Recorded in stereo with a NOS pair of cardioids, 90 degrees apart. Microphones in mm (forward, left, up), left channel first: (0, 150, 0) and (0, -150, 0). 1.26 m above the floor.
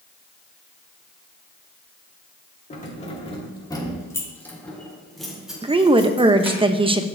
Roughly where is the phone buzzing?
I don't hear a phone buzzing.